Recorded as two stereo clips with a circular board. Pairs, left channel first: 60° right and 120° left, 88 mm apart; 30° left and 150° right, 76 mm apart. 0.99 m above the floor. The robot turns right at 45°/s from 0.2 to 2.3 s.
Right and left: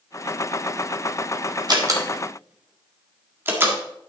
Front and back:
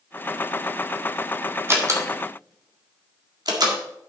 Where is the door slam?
155° left, 1.7 m; by 3.8 s 175° right, 1.7 m.